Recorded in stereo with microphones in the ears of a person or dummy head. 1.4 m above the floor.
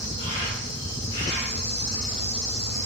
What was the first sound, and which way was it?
An insect, 45° left (ahead or behind).